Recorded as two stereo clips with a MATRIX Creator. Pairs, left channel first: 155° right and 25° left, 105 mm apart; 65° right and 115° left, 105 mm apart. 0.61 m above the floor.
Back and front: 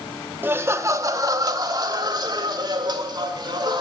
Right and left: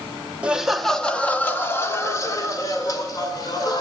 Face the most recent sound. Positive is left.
turn(degrees=-20)